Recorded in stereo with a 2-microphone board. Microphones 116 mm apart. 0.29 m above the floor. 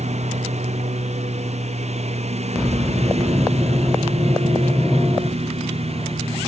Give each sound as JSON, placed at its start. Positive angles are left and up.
{"t": 0.0, "sound": "a lawn mower", "side_deg": -75}